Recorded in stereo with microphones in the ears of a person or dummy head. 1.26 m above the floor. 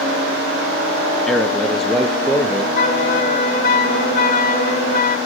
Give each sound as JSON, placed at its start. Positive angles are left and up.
{"t": 1.3, "sound": "a man speaking", "side_deg": 0, "distance_m": 0.6}
{"t": 2.8, "sound": "a flute", "side_deg": 45, "distance_m": 0.9}